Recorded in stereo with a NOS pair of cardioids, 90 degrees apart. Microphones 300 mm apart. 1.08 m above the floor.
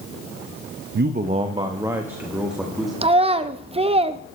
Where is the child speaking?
20° right, 0.9 m.